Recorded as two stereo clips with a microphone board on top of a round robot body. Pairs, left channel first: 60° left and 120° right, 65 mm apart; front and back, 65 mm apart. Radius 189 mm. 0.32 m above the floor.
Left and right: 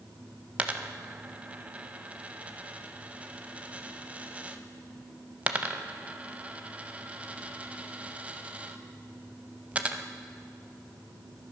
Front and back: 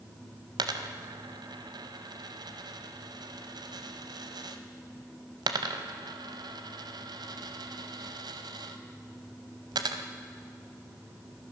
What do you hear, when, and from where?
0.6 s a dropped coin: 170° left, 0.6 m